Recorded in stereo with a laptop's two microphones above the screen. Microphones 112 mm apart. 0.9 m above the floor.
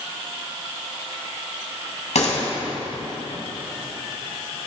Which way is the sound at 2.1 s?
85° left.